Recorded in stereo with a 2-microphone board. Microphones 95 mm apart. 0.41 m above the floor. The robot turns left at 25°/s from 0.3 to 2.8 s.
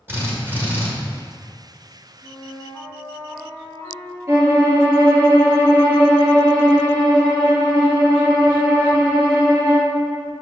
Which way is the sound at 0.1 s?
25° right (ahead or behind).